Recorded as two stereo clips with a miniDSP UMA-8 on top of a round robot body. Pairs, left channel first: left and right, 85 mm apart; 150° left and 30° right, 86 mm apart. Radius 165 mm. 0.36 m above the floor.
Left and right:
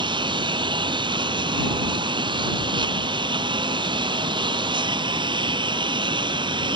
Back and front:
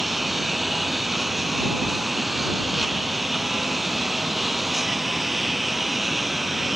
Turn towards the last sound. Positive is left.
turn(degrees=-120)